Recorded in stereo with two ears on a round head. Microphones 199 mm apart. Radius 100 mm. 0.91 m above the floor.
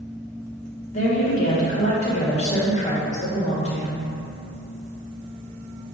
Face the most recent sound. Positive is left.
turn(degrees=35)  # may be behind; listen again after turning